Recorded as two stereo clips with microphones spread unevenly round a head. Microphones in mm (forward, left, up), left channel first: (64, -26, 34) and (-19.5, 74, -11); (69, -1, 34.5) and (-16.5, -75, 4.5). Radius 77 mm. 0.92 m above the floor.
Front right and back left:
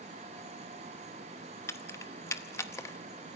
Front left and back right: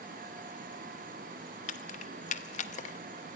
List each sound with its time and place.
1.7 s keys jangling: 25° left, 0.9 m